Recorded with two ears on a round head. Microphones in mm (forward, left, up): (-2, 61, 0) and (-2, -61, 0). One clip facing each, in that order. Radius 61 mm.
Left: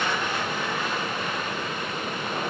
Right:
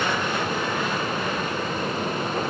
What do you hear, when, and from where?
Only background noise.